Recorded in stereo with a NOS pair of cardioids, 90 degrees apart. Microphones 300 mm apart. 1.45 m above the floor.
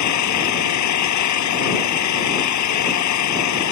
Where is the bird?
I don't hear a bird.